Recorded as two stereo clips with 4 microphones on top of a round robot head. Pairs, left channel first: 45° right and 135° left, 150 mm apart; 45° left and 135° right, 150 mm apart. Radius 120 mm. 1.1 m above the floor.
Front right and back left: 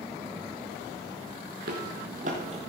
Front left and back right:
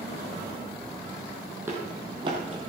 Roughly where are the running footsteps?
Behind left.